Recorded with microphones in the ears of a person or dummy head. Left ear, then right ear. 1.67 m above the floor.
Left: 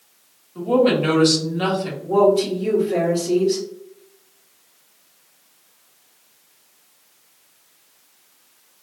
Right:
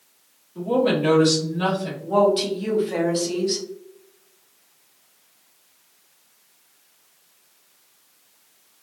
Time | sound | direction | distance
0.6 | a woman speaking | 20° left (ahead or behind) | 1.3 m
2.0 | a woman speaking | 50° right (ahead or behind) | 0.9 m